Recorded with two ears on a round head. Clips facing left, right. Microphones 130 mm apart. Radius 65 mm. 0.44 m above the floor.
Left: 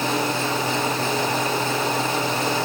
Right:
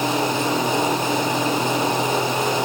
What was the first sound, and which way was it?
Only background noise.